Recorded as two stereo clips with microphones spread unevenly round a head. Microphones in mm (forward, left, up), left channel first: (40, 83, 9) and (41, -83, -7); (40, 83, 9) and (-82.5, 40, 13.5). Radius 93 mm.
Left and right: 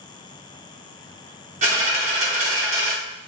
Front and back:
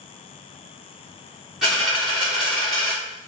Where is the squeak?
No squeak in this recording.